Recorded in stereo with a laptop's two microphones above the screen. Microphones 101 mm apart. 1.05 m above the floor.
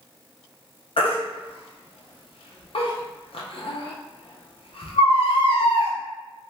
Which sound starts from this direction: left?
A baby crying, at 1.0 s.